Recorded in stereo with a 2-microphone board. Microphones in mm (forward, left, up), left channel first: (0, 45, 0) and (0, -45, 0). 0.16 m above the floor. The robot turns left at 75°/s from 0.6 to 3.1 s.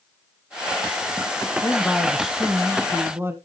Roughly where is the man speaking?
Ahead left.